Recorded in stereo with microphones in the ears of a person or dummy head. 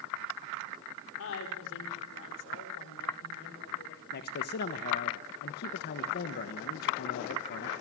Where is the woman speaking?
70° left (ahead or behind), 4.5 m; by 4.0 s 55° left (ahead or behind), 6.5 m.